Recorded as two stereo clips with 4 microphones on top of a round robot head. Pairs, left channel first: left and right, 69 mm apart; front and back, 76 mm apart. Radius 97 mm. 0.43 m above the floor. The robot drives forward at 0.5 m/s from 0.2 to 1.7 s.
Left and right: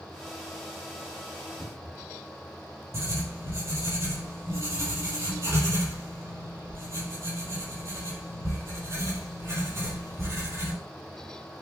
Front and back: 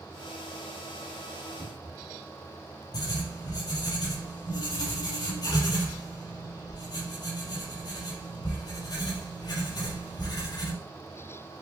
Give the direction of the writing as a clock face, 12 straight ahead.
1 o'clock.